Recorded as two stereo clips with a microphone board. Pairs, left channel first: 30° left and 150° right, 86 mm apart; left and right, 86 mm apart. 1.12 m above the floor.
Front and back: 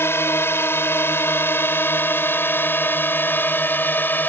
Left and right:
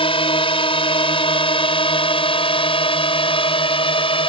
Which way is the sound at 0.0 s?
95° left.